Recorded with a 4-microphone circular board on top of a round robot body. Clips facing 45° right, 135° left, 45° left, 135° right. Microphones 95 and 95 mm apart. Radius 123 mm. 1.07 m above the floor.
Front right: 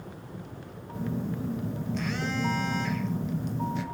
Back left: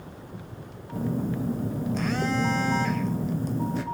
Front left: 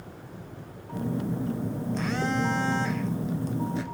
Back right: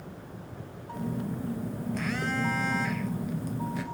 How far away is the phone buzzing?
About 0.5 m.